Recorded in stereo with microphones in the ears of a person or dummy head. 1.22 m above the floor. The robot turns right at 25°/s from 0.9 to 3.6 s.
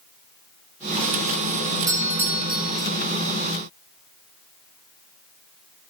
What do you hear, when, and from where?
1.9 s a doorbell: 20° right (ahead or behind), 0.7 m; by 2.9 s centre (ahead or behind), 0.7 m